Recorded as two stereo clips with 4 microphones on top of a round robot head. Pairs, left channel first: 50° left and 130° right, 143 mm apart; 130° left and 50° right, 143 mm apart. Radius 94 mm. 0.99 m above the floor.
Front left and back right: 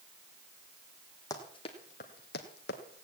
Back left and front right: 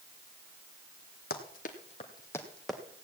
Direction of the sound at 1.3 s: 115° left.